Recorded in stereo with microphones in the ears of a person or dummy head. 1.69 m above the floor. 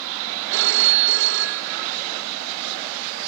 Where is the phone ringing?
65° right (ahead or behind).